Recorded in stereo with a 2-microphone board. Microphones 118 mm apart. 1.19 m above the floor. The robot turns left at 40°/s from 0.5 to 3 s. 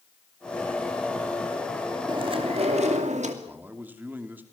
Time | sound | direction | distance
2.1 | chewing | 40° right | 2.5 m
3.4 | a man speaking | 15° right (ahead or behind) | 2.5 m